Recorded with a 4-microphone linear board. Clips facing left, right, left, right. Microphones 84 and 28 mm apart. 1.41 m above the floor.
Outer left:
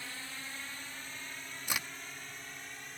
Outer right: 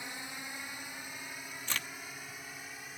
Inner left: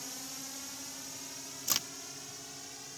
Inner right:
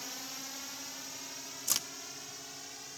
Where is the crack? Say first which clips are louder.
Outer left 1 dB, inner left 1 dB; 15° left (ahead or behind).